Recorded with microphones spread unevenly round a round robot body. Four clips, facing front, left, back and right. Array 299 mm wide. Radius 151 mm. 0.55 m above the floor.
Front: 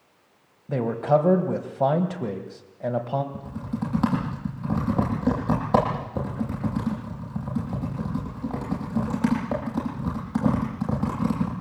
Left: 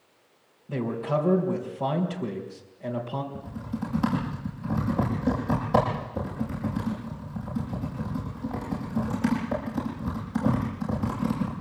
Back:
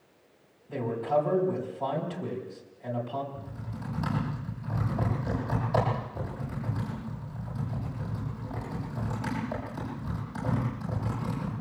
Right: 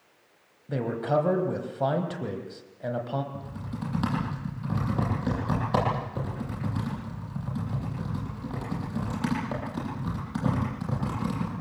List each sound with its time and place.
0.7 s a man speaking: 10° right, 3.5 m
3.3 s typing on a keyboard: 5° right, 9 m